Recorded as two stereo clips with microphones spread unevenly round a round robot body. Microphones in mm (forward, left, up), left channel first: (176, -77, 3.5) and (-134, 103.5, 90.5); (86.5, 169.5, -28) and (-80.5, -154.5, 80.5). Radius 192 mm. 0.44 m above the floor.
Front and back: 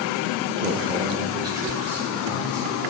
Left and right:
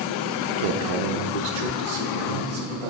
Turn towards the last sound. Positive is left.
turn(degrees=-110)